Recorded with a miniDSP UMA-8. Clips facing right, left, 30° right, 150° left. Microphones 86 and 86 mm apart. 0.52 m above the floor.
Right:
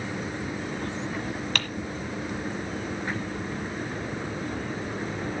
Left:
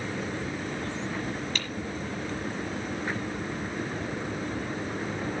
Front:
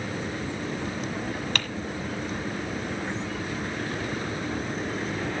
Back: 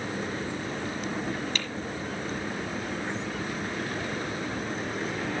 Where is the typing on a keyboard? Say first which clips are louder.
Right 4 dB, front 3 dB; 60° right, 1.3 m.